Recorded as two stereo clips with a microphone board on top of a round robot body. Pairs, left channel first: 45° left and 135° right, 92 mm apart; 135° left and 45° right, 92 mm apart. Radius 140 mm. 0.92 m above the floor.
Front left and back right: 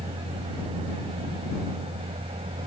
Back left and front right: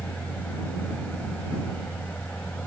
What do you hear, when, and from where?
0.0 s a vehicle: 150° right